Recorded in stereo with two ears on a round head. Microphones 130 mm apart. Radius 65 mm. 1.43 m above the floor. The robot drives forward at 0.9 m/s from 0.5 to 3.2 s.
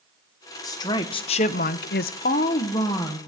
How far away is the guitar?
No guitar in this recording.